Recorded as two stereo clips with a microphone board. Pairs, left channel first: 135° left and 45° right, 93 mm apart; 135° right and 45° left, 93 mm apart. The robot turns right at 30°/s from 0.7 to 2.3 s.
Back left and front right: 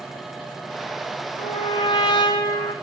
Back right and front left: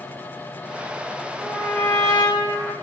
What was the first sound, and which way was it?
A trumpet, 145° left.